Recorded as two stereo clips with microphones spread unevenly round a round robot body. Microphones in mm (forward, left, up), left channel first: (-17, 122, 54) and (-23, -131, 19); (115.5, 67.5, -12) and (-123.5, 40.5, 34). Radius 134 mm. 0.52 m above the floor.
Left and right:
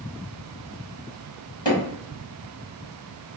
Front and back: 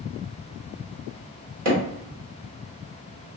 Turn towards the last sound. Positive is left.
turn(degrees=165)